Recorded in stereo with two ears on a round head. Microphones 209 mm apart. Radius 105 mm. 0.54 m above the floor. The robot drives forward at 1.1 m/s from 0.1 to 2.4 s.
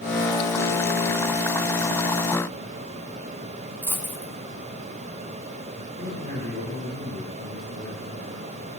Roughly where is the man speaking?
Right.